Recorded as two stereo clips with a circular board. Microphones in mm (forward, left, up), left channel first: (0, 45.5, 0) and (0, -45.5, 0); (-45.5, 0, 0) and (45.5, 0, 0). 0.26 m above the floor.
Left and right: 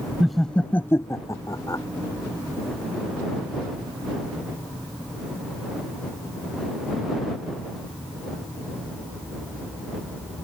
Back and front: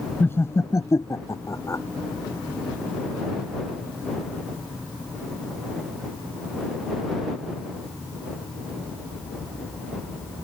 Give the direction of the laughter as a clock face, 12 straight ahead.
6 o'clock.